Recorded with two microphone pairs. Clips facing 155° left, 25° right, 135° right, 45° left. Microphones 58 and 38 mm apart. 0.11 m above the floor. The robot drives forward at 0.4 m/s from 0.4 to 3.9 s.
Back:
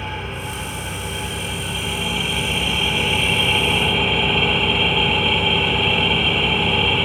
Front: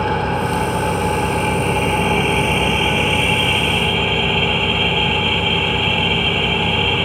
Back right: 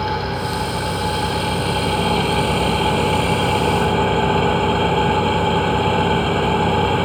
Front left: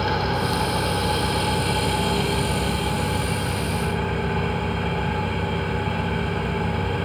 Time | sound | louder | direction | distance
0.0 | an engine running | front 10 dB, back right 1 dB | 40° right | 1.4 m